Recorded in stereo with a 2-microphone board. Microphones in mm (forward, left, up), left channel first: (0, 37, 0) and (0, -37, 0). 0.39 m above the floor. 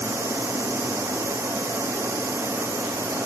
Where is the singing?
No singing in this recording.